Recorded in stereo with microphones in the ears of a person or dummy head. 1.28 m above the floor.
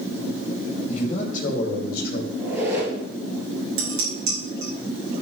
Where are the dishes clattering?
55° right (ahead or behind), 4.5 m.